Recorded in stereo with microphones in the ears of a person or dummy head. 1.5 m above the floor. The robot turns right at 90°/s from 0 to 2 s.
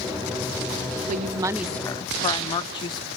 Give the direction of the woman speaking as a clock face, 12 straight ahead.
2 o'clock.